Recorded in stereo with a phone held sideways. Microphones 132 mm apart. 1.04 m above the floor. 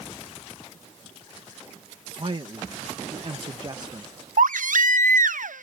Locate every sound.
2.2 s a man speaking: 40° right (ahead or behind); by 4.1 s 25° right (ahead or behind)
4.4 s a baby crying: 80° right